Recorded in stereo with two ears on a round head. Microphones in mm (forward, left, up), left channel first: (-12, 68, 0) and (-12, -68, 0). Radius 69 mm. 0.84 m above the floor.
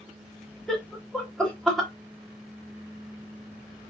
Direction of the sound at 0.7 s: 5° left (ahead or behind).